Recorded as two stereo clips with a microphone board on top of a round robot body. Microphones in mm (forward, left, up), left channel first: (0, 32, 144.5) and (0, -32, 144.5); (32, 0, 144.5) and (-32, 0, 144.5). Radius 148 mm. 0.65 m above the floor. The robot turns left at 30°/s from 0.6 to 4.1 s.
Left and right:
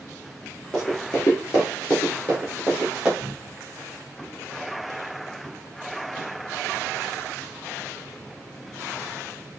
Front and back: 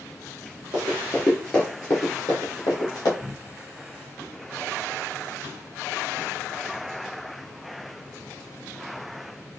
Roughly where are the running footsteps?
Behind.